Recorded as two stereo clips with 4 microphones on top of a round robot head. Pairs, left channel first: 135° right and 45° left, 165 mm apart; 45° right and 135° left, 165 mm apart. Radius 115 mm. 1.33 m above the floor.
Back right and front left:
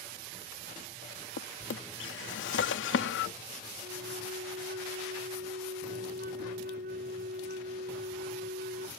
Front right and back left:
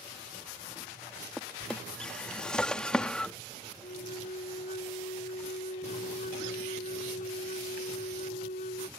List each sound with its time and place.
1.4 s a drawer: 130° right
3.8 s a flute: 5° left